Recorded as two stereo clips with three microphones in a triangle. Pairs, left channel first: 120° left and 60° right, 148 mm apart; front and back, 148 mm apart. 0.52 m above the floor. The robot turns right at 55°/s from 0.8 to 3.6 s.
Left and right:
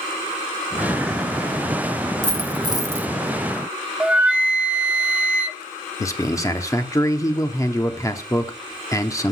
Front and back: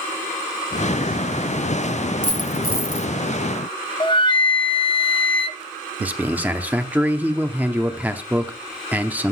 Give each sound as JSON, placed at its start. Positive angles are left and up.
{"t": 2.2, "sound": "a dropped coin", "azimuth_deg": -25, "distance_m": 0.9}
{"t": 4.0, "sound": "a flute", "azimuth_deg": 15, "distance_m": 0.7}
{"t": 6.0, "sound": "a man speaking", "azimuth_deg": 120, "distance_m": 0.8}